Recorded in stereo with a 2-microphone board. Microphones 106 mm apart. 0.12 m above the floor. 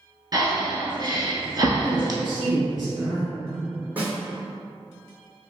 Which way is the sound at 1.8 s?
Centre (ahead or behind).